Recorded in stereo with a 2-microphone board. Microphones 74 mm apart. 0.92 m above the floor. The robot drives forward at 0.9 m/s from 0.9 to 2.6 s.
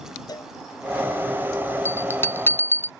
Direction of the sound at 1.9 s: 35° left (ahead or behind).